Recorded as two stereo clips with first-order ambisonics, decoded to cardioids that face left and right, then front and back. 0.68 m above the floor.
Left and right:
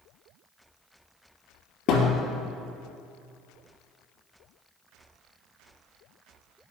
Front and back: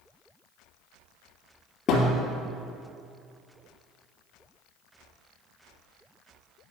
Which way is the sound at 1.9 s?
55° left.